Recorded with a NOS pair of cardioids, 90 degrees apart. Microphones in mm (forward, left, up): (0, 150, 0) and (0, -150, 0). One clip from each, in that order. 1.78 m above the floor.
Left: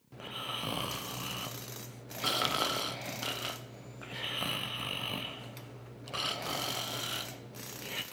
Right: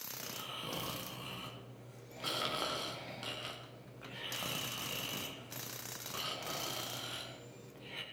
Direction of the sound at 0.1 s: 45° left.